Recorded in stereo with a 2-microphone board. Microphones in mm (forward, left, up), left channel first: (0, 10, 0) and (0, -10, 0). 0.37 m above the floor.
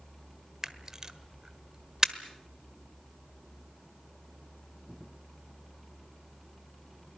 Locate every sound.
0.6 s a camera shutter: 30° right (ahead or behind), 1.2 m